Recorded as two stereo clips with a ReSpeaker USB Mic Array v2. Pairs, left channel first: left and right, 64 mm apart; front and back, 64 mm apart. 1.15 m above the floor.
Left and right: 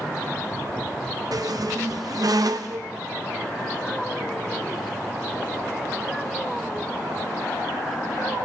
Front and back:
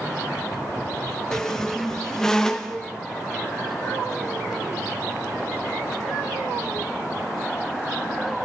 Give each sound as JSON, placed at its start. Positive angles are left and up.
{"t": 1.3, "sound": "a squeak", "azimuth_deg": -80, "distance_m": 0.6}